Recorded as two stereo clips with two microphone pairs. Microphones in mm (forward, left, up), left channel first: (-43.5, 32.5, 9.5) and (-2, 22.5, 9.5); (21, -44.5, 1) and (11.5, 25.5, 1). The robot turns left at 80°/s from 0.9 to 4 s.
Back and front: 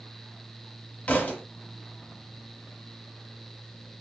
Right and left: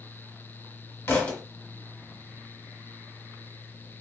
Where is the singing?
I don't hear singing.